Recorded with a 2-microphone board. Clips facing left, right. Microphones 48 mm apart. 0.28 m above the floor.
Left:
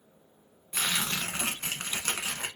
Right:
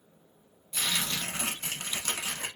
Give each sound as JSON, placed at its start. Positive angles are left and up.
{"t": 0.7, "sound": "tearing paper", "side_deg": 40, "distance_m": 1.1}